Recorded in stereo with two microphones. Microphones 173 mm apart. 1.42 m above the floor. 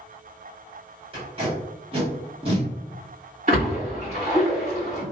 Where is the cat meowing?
I don't hear a cat meowing.